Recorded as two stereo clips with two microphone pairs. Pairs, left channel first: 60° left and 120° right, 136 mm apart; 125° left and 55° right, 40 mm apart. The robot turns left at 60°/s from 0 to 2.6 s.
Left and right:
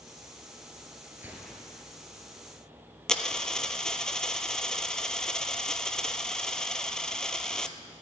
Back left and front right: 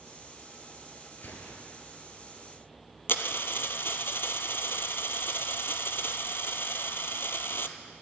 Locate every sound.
1.2 s a gunshot: 165° left, 1.8 m; by 1.9 s 125° left, 1.8 m
3.1 s a dropped coin: 145° left, 0.6 m